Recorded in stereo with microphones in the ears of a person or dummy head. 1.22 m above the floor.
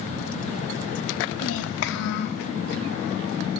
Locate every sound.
1.4 s a child speaking: 80° left, 0.9 m; by 2.5 s 55° left (ahead or behind), 0.8 m